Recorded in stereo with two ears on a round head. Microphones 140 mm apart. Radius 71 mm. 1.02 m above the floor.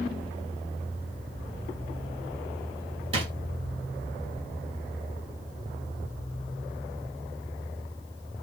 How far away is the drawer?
About 2 m.